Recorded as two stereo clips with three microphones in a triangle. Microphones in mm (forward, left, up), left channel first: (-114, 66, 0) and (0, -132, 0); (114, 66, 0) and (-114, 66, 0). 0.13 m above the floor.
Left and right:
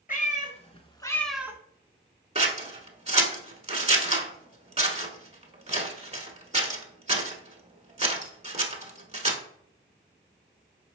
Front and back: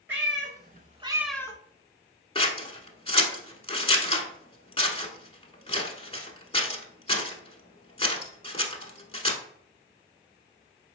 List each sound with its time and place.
0.1 s a cat meowing: 170° left, 1.0 m; by 1.6 s 10° right, 0.5 m
2.4 s scissors: 40° right, 0.8 m